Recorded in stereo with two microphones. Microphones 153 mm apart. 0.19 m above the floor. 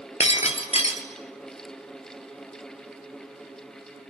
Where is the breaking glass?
45° left (ahead or behind), 1.3 m.